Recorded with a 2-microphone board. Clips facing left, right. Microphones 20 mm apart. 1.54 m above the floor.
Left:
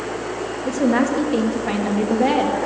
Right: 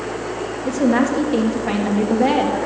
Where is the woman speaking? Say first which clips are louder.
Right 1 dB; 5° right (ahead or behind), 3 m.